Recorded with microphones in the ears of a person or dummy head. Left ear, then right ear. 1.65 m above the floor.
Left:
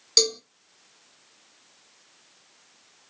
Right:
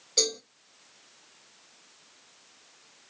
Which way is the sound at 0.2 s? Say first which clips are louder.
Left 6 dB; 65° left (ahead or behind).